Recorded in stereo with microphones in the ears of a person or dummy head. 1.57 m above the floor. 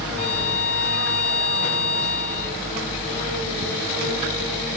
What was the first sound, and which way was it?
A violin, 40° left (ahead or behind).